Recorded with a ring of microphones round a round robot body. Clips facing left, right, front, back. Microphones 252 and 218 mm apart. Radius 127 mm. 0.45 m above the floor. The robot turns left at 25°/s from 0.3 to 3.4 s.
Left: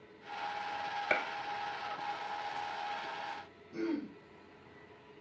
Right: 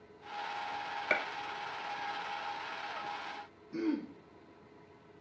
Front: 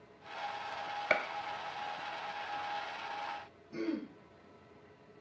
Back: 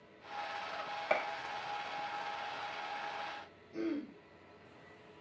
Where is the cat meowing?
I don't hear a cat meowing.